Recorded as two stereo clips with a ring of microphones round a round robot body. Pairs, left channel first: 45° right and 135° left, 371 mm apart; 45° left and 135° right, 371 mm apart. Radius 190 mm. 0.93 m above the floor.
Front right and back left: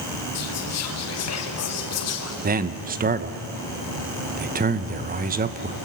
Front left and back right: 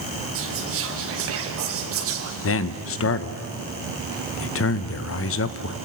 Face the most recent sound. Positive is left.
turn(degrees=80)